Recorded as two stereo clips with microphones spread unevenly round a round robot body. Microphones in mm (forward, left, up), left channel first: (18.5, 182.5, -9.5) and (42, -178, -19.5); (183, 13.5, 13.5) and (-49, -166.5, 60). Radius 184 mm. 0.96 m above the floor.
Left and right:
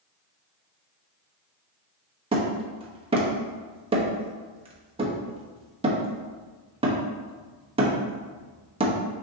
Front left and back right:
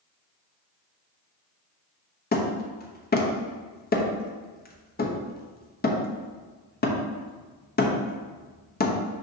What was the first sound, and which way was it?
Hammering, 15° right.